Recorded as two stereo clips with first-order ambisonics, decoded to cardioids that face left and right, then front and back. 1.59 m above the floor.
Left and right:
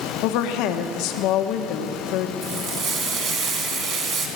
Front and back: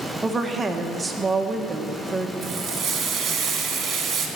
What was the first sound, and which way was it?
A woman speaking, 105° left.